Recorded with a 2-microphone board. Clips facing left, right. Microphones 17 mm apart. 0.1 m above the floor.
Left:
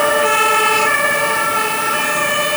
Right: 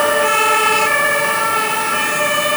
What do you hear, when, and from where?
Only background noise.